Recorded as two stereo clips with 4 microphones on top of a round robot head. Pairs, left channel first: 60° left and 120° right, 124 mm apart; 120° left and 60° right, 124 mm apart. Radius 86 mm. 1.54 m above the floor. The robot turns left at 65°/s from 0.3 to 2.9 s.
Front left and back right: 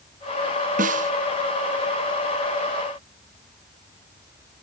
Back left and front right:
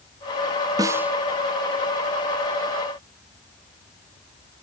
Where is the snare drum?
120° right; by 1.1 s 140° right.